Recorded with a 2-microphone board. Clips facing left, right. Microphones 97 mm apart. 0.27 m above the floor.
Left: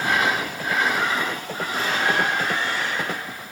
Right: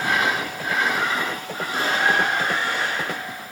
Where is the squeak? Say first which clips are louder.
Right 2 dB; 75° right (ahead or behind), 3.5 m.